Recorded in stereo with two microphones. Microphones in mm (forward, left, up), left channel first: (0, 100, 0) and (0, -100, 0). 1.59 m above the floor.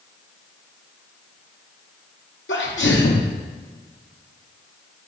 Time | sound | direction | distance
2.5 | a sneeze | 85° left | 0.8 m